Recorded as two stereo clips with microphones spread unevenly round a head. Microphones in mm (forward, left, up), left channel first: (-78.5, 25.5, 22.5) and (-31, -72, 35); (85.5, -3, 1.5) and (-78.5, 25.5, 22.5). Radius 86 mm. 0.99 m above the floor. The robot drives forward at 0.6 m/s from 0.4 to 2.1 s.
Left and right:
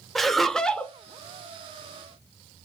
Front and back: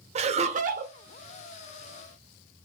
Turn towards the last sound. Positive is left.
turn(degrees=-175)